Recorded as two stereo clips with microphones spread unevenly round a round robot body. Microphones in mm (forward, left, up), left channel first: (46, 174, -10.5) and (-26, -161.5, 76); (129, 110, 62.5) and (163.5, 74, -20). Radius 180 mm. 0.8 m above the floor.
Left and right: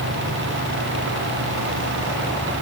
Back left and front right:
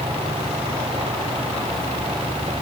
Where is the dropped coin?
No dropped coin in this recording.